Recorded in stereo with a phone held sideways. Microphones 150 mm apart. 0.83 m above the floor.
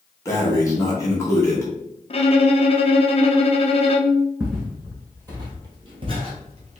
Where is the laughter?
I don't hear laughter.